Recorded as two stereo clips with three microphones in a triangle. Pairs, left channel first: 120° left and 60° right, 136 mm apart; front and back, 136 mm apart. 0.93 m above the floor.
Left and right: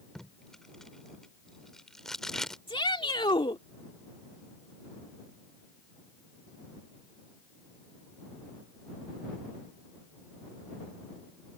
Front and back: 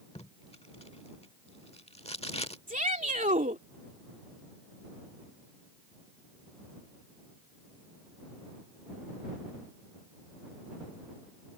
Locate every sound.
0.1 s tape being pulled: 35° left
2.7 s a shout: 170° left